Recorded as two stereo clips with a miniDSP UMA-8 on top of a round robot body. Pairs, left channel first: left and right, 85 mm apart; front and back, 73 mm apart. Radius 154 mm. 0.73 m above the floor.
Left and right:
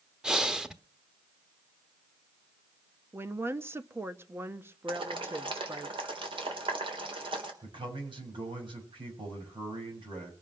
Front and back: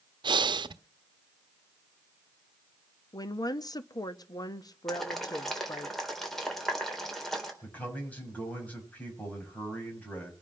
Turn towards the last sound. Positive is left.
turn(degrees=-70)